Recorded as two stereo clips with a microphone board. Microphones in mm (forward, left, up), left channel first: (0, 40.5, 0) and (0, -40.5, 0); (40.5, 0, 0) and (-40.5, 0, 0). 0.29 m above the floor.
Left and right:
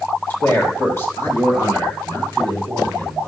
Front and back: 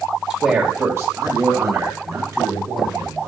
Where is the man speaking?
115° left, 1.4 m; by 3.3 s 150° left, 4.5 m.